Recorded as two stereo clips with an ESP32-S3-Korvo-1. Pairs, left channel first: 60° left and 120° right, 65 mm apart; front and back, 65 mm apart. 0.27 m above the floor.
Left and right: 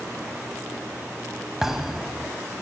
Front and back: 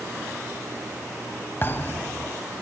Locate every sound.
1.6 s a thud: 40° right, 0.8 m